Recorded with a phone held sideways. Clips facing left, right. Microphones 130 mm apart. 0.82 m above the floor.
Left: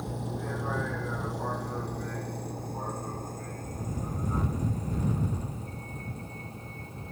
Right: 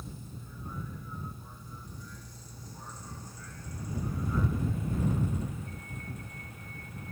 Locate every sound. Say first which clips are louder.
0.0 s a vehicle: left 11 dB; 70° left (ahead or behind); by 7.1 s 30° left (ahead or behind)